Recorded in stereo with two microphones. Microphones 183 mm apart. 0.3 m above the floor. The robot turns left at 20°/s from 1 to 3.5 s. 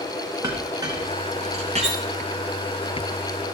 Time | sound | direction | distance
0.4 | a clink | 20° right (ahead or behind) | 2.5 m
1.8 | cutlery clinking | 20° right (ahead or behind) | 1.5 m